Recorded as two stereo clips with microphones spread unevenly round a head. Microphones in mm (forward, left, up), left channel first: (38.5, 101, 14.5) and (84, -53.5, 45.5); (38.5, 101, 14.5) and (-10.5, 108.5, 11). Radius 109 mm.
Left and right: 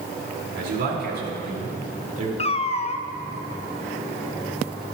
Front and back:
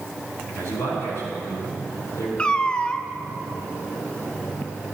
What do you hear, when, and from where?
0.6 s a man speaking: 60° right, 5 m; by 2.3 s 30° right, 4 m
2.4 s a cat meowing: 55° left, 0.7 m